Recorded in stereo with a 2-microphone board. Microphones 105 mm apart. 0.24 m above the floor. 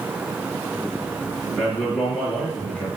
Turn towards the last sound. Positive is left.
turn(degrees=10)  # may be behind; listen again after turning